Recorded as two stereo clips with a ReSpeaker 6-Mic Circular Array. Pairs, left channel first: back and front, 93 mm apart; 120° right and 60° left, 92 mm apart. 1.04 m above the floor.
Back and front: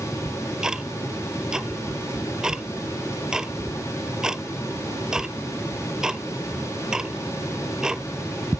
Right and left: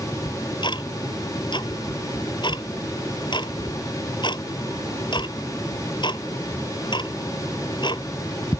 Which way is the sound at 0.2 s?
85° right.